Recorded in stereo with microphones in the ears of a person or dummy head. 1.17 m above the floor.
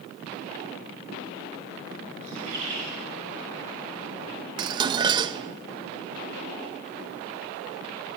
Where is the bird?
35° right (ahead or behind), 3 m.